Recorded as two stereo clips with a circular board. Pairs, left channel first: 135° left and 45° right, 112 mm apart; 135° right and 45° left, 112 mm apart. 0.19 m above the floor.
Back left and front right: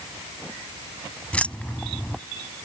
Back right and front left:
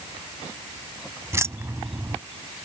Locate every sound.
1.3 s keys jangling: 70° left